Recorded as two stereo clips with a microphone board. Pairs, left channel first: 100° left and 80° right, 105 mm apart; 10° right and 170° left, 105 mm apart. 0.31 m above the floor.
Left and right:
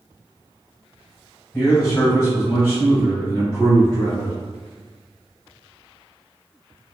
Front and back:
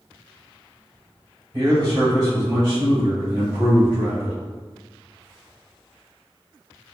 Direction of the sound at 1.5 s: Straight behind.